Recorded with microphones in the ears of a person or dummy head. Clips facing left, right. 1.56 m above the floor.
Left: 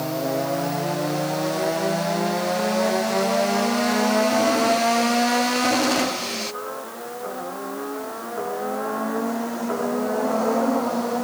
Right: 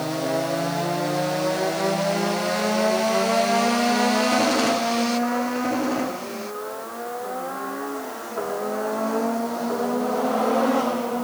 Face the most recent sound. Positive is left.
No sound to turn to.